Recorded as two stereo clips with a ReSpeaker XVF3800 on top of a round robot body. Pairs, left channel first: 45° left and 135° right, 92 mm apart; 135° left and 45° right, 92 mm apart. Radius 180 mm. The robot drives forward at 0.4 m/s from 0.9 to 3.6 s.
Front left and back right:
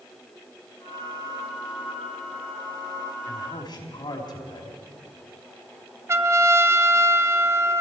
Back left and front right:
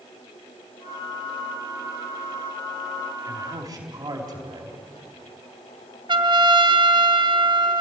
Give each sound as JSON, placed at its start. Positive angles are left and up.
{"t": 3.3, "sound": "a man speaking", "azimuth_deg": 0, "distance_m": 4.5}
{"t": 6.1, "sound": "a trumpet", "azimuth_deg": -75, "distance_m": 1.3}